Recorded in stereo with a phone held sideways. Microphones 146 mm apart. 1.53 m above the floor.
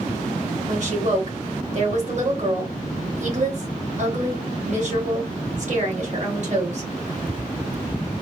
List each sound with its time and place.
0.7 s a woman speaking: 55° right (ahead or behind), 1.7 m